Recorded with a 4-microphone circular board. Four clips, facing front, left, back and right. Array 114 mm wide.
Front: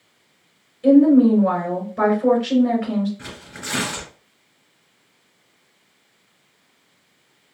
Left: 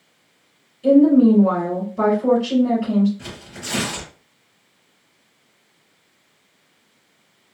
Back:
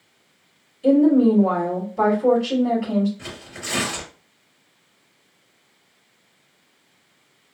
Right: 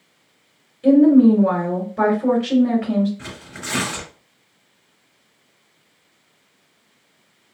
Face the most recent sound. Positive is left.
turn(degrees=-50)